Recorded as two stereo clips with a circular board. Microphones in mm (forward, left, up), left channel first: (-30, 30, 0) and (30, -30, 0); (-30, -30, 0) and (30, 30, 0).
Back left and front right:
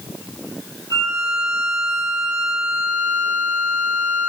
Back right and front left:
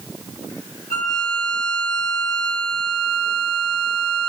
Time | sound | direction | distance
0.9 | a violin | 145° left | 1.6 m